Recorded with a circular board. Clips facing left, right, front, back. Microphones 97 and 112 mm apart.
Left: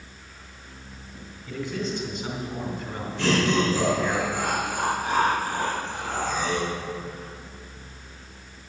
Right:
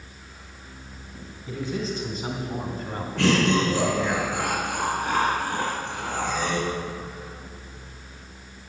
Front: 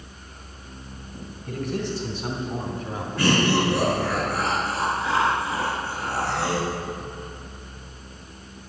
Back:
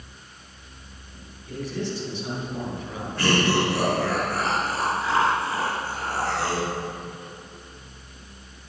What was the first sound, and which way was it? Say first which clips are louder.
A man speaking: right 1 dB, front 2 dB; 35° right.